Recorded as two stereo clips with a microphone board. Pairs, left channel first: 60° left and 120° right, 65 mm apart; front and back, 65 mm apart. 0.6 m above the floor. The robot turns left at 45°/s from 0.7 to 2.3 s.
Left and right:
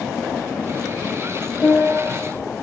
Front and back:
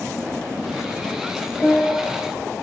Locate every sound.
1.6 s a piano: 45° left, 1.5 m; by 2.1 s 25° left, 1.5 m